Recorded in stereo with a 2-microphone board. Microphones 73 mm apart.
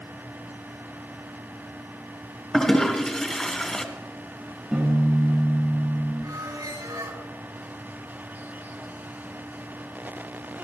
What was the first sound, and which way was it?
A toilet flushing, 10° left (ahead or behind).